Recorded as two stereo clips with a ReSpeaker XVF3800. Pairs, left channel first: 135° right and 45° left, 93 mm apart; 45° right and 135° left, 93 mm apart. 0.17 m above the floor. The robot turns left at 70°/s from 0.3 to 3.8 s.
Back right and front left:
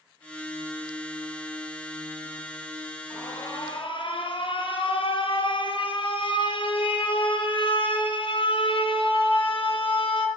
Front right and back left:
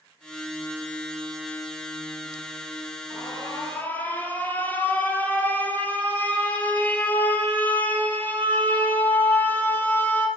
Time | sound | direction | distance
3.1 | an alarm | 65° right | 4.5 m